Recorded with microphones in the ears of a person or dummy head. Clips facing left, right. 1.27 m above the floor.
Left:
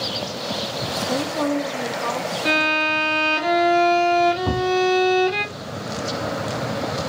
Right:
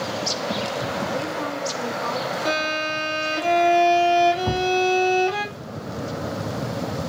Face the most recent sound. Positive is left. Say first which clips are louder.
# left 1 dB
turn(degrees=40)  # may be behind; listen again after turning